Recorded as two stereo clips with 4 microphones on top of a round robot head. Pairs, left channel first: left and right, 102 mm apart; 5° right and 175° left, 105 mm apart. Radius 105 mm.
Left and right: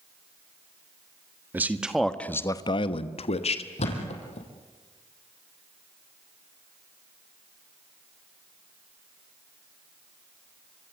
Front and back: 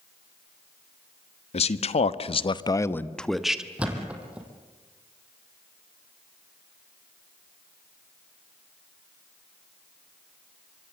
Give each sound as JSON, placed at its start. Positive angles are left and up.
{"t": 1.5, "sound": "a man speaking", "azimuth_deg": -15, "distance_m": 1.4}
{"t": 3.8, "sound": "a thud", "azimuth_deg": 95, "distance_m": 4.0}